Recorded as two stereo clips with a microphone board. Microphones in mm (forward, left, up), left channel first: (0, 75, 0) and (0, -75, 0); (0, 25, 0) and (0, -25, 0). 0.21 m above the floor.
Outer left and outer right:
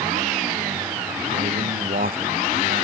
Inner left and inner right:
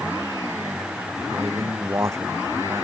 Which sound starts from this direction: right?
A man speaking, at 1.3 s.